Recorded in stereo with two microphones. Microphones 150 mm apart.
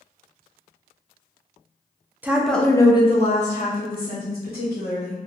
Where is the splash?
No splash in this recording.